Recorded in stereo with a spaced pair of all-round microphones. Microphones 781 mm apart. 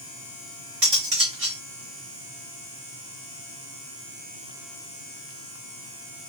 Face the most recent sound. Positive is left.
turn(degrees=-60)  # may be behind; listen again after turning